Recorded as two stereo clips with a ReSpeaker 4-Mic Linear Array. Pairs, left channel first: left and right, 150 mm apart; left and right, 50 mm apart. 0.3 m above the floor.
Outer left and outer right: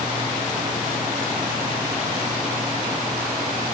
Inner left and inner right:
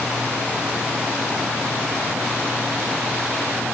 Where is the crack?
No crack in this recording.